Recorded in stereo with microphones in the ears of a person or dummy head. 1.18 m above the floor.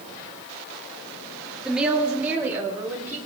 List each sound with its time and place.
1.6 s a woman speaking: centre (ahead or behind), 1.3 m; by 3.2 s 15° right (ahead or behind), 2 m